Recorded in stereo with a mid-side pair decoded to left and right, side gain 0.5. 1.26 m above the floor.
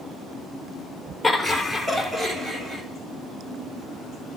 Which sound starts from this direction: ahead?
Laughter, at 1.2 s.